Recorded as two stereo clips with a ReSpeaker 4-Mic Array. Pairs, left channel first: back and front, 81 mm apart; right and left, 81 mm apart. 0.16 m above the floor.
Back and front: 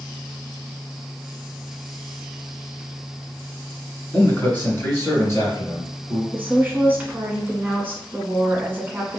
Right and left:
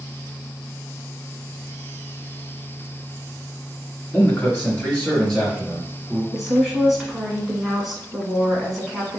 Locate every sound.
4.1 s a man speaking: 130° right, 1.8 m; by 6.2 s 175° left, 2 m
6.3 s a woman speaking: 5° left, 1.2 m